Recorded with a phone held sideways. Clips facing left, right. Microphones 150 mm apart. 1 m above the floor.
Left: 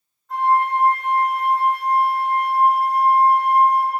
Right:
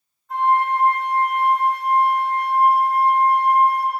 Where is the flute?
Centre (ahead or behind), 1.5 m.